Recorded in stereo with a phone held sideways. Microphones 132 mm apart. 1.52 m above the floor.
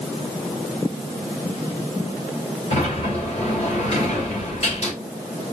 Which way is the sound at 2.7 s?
50° left (ahead or behind).